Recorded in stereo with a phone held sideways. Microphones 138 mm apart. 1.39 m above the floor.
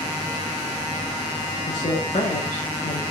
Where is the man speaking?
55° left (ahead or behind), 1.7 m.